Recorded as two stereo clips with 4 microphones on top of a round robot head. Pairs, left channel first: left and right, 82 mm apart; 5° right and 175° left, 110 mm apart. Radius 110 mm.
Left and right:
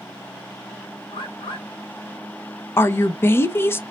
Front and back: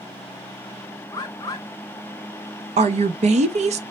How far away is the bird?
About 0.6 m.